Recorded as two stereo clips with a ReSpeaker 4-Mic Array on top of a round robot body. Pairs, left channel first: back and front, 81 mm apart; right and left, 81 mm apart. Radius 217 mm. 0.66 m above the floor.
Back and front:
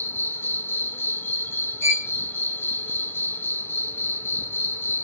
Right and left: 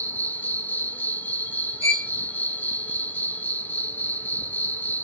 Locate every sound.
0.0 s an insect: 140° right, 1.0 m
1.8 s a violin: 130° left, 1.5 m